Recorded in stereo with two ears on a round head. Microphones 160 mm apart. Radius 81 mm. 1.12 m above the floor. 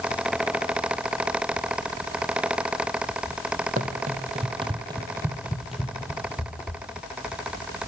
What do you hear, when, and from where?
3.8 s running footsteps: 50° right (ahead or behind), 1.6 m; by 6.8 s 15° left (ahead or behind), 1.8 m